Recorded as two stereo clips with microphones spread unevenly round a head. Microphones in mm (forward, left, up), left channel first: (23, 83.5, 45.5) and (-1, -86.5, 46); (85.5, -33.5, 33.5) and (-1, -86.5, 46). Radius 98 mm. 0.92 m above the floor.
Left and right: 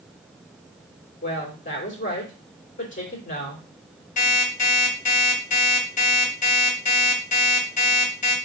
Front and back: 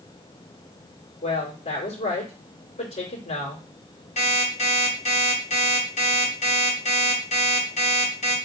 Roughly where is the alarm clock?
Ahead left.